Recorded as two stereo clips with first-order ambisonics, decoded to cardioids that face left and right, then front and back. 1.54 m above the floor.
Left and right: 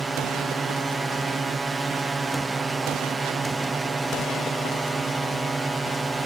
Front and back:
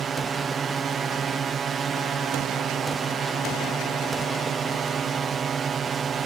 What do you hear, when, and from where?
0.0 s a drone: 160° right